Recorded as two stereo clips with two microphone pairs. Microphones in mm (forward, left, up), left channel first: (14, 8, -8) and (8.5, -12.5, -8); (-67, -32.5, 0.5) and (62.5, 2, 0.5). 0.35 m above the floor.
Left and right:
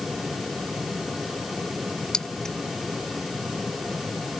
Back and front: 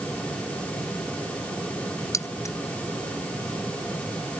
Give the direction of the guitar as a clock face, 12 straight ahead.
I don't hear a guitar.